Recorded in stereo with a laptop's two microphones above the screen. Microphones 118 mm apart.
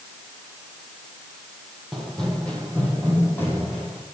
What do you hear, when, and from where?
1.9 s running footsteps: centre (ahead or behind), 2 m; by 4.0 s 20° left (ahead or behind), 3.5 m